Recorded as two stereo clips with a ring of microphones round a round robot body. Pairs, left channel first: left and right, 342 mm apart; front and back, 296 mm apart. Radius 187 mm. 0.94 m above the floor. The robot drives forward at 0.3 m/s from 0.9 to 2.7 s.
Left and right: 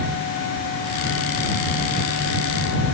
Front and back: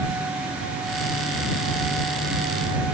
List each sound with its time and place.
Only background noise.